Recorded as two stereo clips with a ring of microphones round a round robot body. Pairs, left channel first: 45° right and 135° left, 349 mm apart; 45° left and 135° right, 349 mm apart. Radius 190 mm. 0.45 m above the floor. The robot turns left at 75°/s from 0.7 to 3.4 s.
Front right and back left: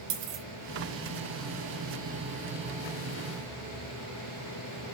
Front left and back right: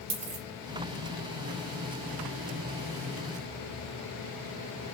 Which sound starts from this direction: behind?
A dropped coin, at 0.1 s.